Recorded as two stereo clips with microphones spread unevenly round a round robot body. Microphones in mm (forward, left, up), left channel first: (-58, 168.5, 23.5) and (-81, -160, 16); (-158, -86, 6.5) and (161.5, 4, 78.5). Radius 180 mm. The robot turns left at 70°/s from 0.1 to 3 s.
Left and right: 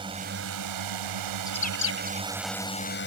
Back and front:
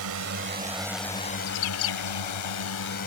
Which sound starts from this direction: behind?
A bird, at 1.5 s.